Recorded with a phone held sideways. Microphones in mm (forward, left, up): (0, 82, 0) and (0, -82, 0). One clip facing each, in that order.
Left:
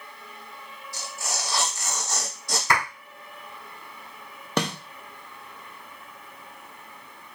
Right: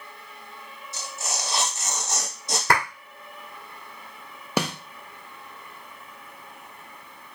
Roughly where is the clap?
Right.